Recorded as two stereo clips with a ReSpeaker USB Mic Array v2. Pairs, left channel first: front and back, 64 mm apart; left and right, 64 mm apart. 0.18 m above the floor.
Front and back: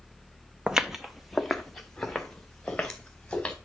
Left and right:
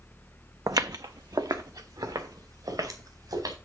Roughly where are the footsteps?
Right.